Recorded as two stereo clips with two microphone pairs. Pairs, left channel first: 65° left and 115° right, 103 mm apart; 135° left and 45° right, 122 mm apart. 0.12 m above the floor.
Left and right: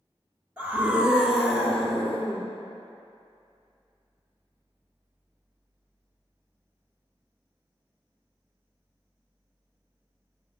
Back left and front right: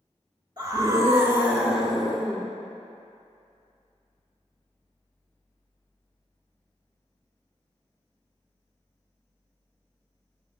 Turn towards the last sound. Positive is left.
turn(degrees=75)